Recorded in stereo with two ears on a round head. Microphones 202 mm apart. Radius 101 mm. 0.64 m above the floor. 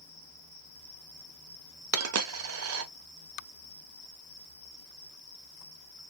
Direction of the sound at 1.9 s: 70° right (ahead or behind).